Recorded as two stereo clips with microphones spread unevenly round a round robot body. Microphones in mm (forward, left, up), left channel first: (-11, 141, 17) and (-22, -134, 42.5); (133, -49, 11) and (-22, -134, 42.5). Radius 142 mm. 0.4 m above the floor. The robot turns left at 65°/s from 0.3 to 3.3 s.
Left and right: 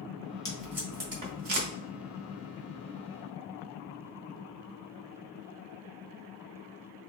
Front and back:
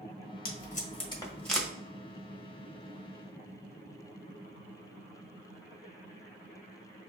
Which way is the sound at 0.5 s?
15° left.